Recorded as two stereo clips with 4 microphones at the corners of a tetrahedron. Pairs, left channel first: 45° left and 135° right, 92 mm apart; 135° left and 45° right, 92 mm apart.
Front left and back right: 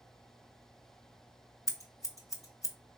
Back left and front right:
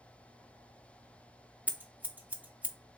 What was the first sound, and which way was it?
Scissors, 20° left.